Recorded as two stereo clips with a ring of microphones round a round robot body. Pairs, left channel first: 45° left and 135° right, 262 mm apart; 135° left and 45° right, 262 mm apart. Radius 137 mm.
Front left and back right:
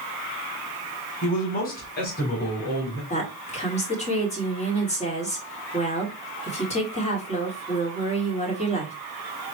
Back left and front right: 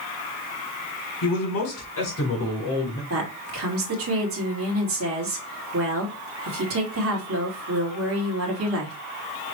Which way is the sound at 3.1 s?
15° right.